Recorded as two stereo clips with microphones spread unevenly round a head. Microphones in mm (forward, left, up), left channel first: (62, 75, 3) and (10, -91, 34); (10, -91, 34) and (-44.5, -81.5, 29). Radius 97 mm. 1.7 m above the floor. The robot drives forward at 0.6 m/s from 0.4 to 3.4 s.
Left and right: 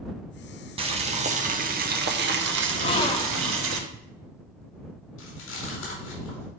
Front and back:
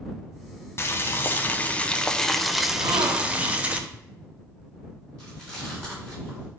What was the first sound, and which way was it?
Boiling, 50° right.